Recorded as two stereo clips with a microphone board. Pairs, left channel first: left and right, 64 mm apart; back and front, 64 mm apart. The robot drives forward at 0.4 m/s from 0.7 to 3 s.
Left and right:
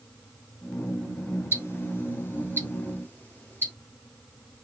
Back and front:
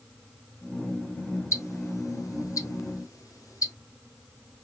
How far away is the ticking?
About 1.1 m.